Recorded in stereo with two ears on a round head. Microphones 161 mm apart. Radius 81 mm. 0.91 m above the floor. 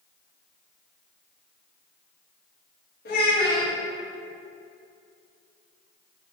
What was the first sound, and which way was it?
A child speaking, 60° left (ahead or behind).